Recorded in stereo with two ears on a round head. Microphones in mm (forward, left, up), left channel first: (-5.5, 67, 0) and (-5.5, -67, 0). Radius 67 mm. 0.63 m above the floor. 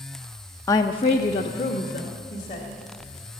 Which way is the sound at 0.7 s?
20° left (ahead or behind).